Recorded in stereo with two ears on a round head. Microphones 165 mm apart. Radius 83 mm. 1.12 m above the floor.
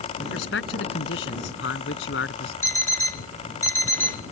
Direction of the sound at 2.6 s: 10° left (ahead or behind).